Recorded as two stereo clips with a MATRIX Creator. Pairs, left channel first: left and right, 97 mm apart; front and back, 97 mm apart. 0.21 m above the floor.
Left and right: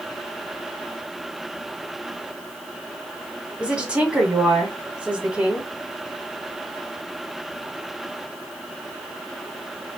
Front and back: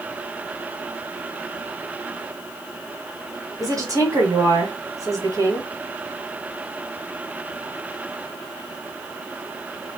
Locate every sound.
3.6 s a woman speaking: 160° right, 1.5 m